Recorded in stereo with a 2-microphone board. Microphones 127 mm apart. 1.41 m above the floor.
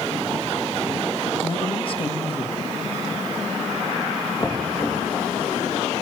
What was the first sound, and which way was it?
A man speaking, 45° left (ahead or behind).